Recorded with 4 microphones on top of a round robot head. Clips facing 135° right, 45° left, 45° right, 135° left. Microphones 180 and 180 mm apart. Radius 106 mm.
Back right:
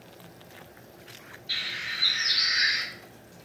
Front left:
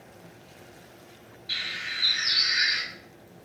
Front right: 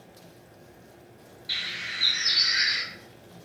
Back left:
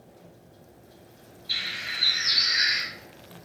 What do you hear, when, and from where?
1.5 s a bird: 35° right, 1.7 m